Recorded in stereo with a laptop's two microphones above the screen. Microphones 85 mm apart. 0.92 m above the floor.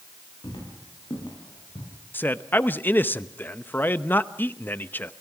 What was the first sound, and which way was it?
Footsteps, 65° left (ahead or behind).